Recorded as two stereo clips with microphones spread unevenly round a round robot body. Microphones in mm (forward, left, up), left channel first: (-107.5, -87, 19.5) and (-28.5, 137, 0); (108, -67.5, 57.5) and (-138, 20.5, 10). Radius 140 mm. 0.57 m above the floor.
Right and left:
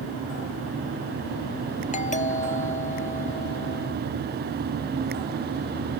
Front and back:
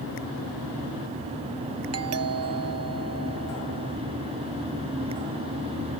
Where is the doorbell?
170° right.